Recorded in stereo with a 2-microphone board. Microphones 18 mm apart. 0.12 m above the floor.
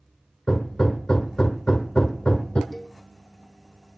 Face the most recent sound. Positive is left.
turn(degrees=5)  # may be behind; listen again after turning